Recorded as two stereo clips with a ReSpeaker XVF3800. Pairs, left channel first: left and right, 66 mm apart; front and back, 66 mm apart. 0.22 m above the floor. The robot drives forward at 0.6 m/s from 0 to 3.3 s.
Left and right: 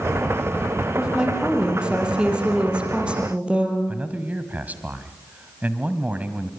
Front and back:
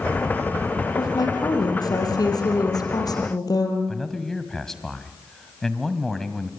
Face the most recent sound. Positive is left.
turn(degrees=-75)